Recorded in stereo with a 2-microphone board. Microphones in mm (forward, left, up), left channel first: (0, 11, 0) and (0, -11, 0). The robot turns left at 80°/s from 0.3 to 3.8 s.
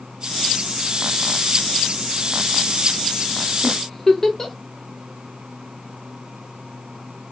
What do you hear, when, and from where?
3.6 s a giggle: 25° left (ahead or behind), 0.5 m; by 4.5 s 20° left (ahead or behind), 0.5 m